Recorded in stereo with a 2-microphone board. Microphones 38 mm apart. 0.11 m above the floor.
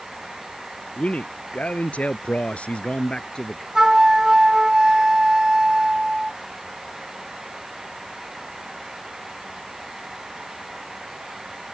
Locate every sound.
1.0 s a man speaking: 35° left (ahead or behind); by 3.6 s 20° left (ahead or behind)
3.8 s a flute: 15° right (ahead or behind)